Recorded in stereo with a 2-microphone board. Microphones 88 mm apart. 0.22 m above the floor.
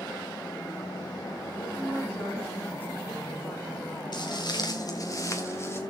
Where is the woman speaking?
25° left (ahead or behind), 9.5 m.